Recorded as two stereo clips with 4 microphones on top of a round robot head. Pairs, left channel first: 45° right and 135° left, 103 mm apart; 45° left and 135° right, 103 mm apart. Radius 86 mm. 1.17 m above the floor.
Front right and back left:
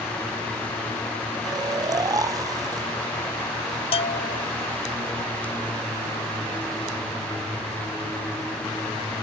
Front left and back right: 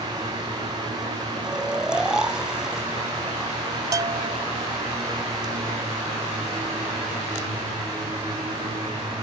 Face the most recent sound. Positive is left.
turn(degrees=-75)